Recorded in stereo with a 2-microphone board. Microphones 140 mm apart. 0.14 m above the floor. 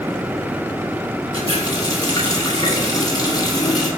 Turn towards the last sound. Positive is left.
turn(degrees=30)  # may be behind; listen again after turning